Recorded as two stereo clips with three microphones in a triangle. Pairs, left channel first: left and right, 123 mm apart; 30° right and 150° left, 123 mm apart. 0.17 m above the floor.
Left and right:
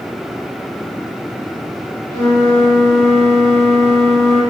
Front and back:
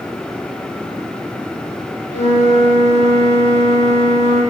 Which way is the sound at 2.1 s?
160° left.